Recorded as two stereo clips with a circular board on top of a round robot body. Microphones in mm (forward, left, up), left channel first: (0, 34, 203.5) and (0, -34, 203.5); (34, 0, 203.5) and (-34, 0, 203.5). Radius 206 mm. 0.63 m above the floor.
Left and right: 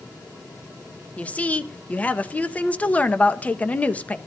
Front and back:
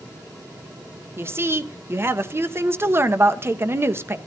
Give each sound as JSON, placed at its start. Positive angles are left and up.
{"t": 1.2, "sound": "a woman speaking", "azimuth_deg": 150, "distance_m": 1.1}